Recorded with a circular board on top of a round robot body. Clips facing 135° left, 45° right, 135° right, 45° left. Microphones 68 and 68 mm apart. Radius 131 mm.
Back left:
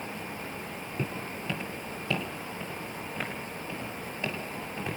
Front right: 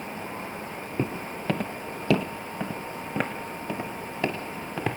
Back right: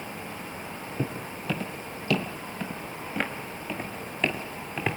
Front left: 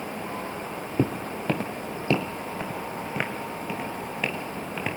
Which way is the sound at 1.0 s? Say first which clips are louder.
Front right 5 dB, front left 7 dB; 20° left.